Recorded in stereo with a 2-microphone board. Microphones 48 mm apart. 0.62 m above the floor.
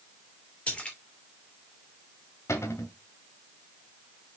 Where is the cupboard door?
85° left, 1.8 m.